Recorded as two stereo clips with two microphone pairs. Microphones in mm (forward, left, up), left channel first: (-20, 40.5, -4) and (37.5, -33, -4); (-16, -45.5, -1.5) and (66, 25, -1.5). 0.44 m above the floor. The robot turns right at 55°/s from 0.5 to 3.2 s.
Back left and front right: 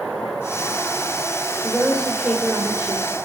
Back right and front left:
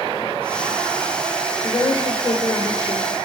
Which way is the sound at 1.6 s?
150° right.